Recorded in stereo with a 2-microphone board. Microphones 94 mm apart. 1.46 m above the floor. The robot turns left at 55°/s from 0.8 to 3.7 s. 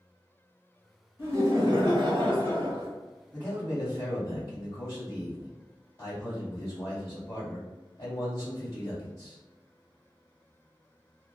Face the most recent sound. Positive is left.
turn(degrees=45)  # may be behind; listen again after turning